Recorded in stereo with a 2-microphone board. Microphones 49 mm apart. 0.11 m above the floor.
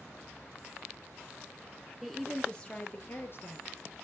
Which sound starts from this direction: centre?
A woman speaking, at 2.0 s.